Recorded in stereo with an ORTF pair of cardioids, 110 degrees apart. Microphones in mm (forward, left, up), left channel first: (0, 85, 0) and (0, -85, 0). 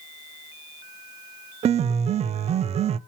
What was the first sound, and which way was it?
A piano, 40° right.